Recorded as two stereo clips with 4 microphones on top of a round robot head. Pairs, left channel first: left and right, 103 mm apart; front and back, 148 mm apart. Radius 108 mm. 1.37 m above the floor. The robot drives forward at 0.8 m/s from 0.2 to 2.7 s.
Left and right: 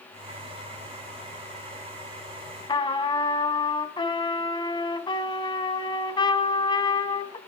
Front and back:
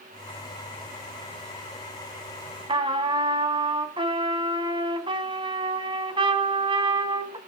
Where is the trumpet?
125° left, 2.5 m.